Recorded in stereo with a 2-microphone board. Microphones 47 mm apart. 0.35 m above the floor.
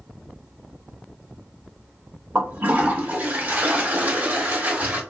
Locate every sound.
2.4 s a toilet flushing: 40° right (ahead or behind), 1.0 m